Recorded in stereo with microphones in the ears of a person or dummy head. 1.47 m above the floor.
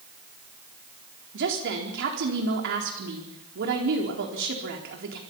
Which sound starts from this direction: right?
A woman speaking, at 1.3 s.